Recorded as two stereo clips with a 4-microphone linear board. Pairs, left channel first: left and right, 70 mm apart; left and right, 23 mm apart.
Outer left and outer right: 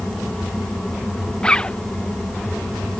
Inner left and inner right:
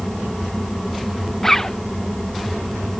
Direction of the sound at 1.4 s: 15° left (ahead or behind).